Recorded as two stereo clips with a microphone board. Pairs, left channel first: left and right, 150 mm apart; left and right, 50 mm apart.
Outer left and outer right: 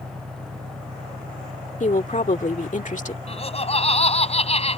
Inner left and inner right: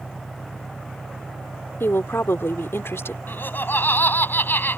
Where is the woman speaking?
55° left (ahead or behind).